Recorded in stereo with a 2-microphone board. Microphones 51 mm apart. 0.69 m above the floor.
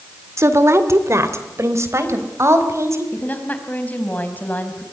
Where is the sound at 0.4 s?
65° right (ahead or behind), 1.9 m.